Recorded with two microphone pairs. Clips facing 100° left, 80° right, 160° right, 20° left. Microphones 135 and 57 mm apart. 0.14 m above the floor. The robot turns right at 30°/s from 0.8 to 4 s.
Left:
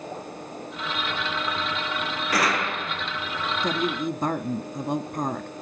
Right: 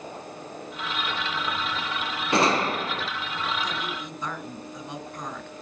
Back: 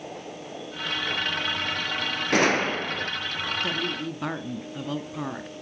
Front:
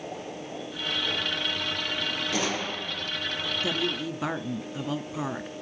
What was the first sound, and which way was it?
A gunshot, 140° right.